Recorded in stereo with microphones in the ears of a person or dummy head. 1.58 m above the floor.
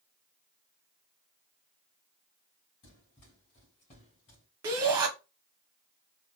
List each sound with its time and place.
2.8 s running footsteps: 30° left (ahead or behind), 2.5 m
4.6 s a shout: 25° right (ahead or behind), 0.7 m